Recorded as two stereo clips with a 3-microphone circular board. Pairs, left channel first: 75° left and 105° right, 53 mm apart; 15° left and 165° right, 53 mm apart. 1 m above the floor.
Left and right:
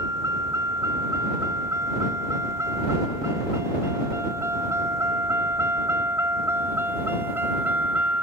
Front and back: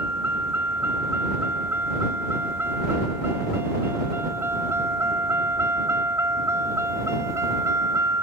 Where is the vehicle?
120° right; by 8.2 s 160° right.